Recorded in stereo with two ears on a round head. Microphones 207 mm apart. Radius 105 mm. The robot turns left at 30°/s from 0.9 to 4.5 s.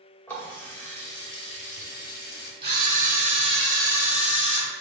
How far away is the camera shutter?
About 1.8 m.